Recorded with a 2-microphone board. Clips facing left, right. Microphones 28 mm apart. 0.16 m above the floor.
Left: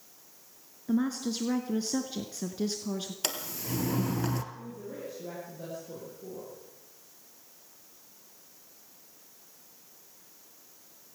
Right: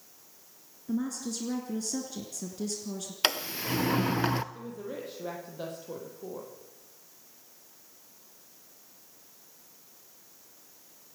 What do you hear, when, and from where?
0.9 s a woman speaking: 35° left (ahead or behind), 1.7 m
3.2 s a sliding door: 45° right (ahead or behind), 1.0 m
4.5 s a woman speaking: 75° right (ahead or behind), 6.5 m